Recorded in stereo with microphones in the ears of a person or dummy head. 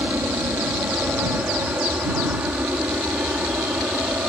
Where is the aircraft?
15° right (ahead or behind).